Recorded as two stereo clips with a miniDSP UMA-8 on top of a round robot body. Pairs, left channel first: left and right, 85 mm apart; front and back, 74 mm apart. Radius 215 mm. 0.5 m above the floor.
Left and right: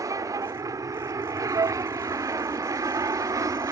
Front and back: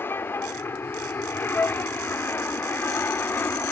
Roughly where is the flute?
Ahead right.